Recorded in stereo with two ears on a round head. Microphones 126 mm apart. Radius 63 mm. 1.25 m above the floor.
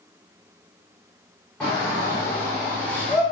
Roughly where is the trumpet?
I don't hear a trumpet.